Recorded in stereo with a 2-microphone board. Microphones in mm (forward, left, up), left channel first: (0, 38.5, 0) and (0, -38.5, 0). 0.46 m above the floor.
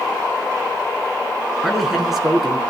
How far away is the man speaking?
About 5 m.